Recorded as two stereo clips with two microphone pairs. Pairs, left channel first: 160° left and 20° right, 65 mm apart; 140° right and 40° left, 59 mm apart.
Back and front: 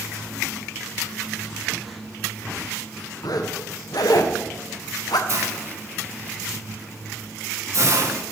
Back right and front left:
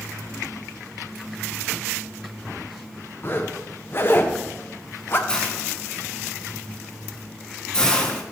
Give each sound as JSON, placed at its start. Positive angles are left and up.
{"t": 3.2, "sound": "a zipper", "azimuth_deg": 170, "distance_m": 0.9}
{"t": 5.3, "sound": "a hiss", "azimuth_deg": -60, "distance_m": 1.2}